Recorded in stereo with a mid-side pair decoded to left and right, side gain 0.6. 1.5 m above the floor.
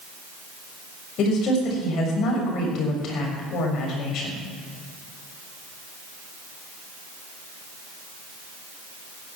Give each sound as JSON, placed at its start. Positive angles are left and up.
{"t": 1.2, "sound": "a woman speaking", "azimuth_deg": 55, "distance_m": 6.5}